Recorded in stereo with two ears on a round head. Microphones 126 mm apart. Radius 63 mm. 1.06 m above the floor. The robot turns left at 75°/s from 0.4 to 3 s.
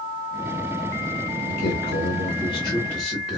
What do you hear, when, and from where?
1.5 s a man speaking: 115° left, 1.7 m; by 3.4 s straight ahead, 1.7 m